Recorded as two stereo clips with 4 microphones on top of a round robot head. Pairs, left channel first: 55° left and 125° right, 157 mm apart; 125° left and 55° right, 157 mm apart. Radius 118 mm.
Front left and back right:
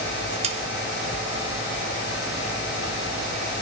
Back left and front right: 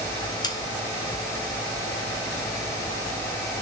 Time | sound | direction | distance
0.4 | sawing | 170° right | 2 m